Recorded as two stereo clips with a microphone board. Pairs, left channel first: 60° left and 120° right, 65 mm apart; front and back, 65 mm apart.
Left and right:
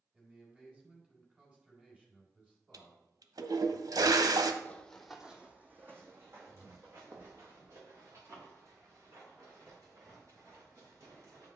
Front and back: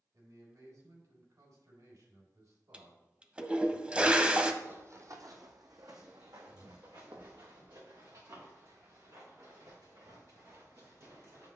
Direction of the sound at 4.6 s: 125° left.